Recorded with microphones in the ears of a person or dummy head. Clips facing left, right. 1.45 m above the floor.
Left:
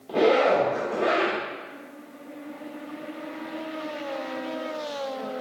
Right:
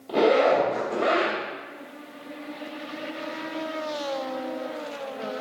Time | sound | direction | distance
0.1 | a zipper | centre (ahead or behind) | 1.1 m